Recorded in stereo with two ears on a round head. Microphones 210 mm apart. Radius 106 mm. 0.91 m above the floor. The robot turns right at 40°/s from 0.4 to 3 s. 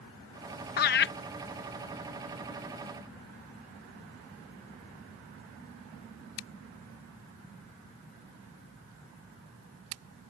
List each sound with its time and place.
0.8 s laughter: 40° left (ahead or behind); by 1.1 s 50° left (ahead or behind)